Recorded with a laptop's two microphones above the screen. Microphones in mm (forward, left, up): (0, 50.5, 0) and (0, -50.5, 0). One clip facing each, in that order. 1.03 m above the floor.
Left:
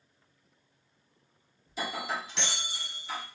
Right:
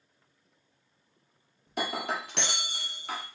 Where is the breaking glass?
60° right (ahead or behind), 0.8 m.